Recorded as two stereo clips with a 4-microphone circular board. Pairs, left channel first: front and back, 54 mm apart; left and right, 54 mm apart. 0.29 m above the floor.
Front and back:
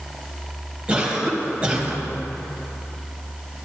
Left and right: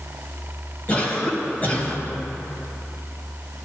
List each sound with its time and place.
0.9 s a cough: 125° left, 1.8 m